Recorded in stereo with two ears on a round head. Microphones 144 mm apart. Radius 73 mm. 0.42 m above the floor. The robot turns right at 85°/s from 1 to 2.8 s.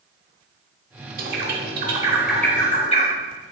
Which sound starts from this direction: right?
A bird, at 1.2 s.